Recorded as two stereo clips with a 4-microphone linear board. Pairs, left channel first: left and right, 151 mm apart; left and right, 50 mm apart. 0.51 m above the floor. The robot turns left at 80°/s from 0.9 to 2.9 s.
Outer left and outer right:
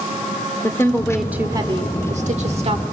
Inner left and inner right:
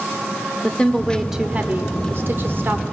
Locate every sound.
0.6 s a woman speaking: 20° left, 1.3 m; by 2.8 s 135° right, 1.3 m